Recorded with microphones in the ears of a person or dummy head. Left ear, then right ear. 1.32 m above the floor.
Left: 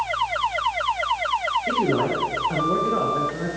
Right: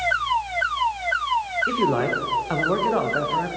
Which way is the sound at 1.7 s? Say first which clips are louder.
Even; 35° right (ahead or behind).